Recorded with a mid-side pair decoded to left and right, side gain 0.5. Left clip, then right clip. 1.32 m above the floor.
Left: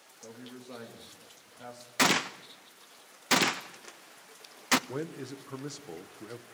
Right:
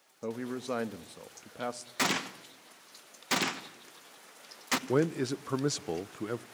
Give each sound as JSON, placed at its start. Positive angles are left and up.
{"t": 0.2, "sound": "a man speaking", "azimuth_deg": -70, "distance_m": 1.4}
{"t": 2.0, "sound": "a gunshot", "azimuth_deg": 30, "distance_m": 0.9}
{"t": 4.9, "sound": "a man speaking", "azimuth_deg": -55, "distance_m": 0.7}